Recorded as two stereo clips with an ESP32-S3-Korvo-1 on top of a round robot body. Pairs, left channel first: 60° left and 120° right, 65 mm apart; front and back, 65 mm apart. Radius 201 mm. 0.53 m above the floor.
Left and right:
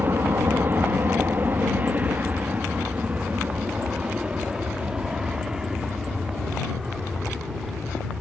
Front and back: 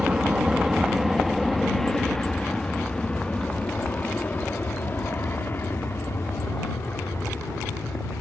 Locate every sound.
0.0 s an aircraft: 110° right; by 8.2 s 30° right